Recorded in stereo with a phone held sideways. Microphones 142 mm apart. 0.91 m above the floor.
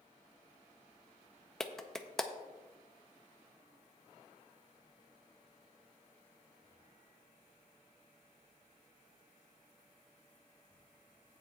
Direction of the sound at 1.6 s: 5° left (ahead or behind).